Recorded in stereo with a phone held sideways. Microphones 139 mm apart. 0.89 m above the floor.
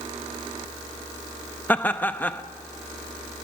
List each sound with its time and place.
1.7 s laughter: 15° left (ahead or behind), 0.8 m